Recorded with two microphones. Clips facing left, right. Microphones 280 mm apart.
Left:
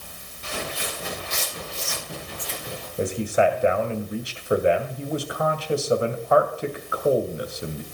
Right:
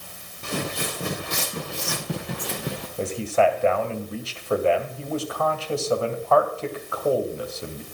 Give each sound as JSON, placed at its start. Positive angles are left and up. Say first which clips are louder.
{"t": 0.4, "sound": "footsteps", "louder": "right 4 dB", "side_deg": -55, "distance_m": 4.0}
{"t": 3.0, "sound": "a man speaking", "louder": "even", "side_deg": 15, "distance_m": 2.0}